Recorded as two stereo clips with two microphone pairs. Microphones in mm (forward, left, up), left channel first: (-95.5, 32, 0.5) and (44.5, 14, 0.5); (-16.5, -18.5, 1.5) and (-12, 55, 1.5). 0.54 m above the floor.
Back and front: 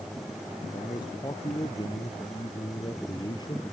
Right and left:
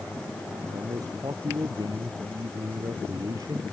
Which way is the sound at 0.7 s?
115° left.